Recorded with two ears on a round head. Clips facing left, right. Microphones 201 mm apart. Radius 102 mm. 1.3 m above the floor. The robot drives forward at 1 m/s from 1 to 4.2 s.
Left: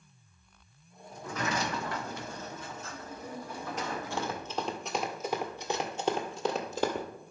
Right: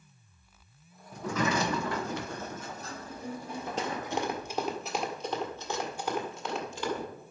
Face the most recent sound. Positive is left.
turn(degrees=40)  # may be behind; listen again after turning